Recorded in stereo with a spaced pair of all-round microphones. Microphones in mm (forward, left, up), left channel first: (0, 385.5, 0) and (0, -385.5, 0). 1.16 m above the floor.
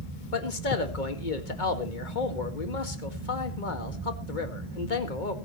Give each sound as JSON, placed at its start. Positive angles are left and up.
{"t": 0.3, "sound": "a man speaking", "side_deg": 80, "distance_m": 2.0}